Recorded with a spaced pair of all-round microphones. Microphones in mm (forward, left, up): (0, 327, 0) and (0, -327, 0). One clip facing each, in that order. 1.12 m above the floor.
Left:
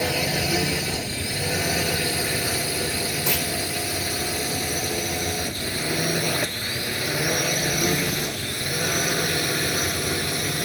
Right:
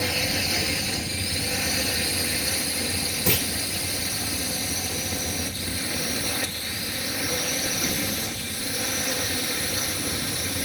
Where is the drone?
75° left (ahead or behind); by 10.7 s 85° left.